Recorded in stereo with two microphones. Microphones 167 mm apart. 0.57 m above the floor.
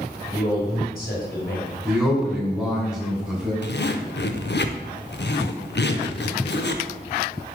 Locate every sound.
0.3 s a man speaking: 55° left (ahead or behind), 3.5 m
1.9 s a man speaking: 5° right (ahead or behind), 2.5 m
3.6 s a zipper: 75° left (ahead or behind), 0.6 m